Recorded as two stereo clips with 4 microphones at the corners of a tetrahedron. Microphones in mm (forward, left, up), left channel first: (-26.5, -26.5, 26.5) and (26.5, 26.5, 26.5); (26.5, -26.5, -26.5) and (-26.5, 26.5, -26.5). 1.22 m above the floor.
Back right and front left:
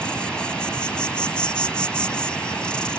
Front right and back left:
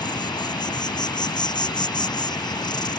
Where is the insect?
55° right.